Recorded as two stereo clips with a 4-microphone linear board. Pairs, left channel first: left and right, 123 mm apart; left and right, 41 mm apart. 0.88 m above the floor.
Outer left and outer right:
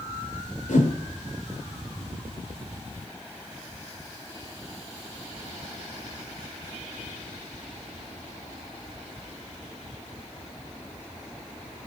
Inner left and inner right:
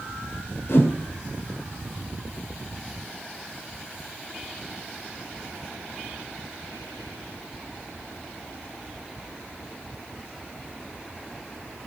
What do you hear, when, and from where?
0.7 s a whoosh: 70° left (ahead or behind), 2.5 m